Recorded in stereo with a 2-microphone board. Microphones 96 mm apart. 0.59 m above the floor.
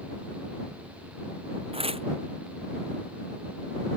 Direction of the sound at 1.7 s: 80° right.